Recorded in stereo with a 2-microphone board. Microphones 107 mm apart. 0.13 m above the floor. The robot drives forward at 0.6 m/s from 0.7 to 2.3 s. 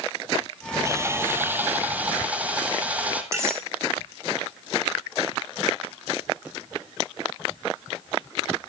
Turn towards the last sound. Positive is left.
turn(degrees=-25)  # may be behind; listen again after turning